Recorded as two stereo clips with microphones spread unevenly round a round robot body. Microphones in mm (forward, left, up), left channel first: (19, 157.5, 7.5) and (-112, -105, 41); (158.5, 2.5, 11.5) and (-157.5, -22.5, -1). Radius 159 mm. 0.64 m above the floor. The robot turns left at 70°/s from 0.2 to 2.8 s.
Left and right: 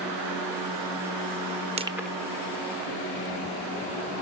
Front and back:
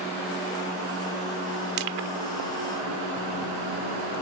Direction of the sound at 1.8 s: 175° left.